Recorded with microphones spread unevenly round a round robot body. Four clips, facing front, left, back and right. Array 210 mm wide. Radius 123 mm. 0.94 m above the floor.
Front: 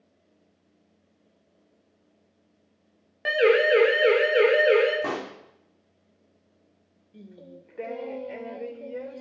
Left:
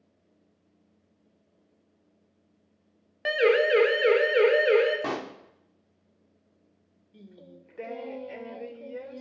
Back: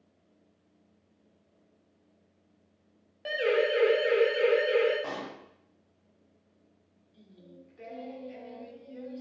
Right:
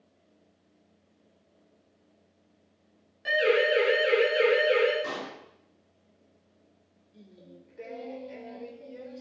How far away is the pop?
About 2.5 m.